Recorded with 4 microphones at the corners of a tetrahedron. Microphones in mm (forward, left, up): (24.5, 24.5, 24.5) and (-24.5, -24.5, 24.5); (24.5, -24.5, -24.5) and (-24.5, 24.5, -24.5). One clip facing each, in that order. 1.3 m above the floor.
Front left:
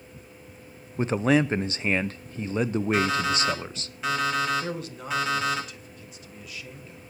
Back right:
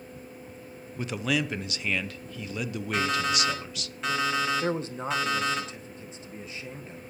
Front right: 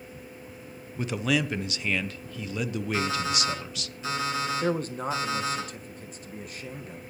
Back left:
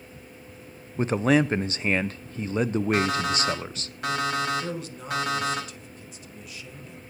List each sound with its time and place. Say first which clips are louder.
1.0 s a man speaking: front left 7 dB, back left 6 dB; 95° left, 0.6 m
2.9 s an alarm clock: even, back left 1 dB; 130° left, 5.5 m
4.6 s a man speaking: back right 4 dB, front right 6 dB; 80° right, 1.4 m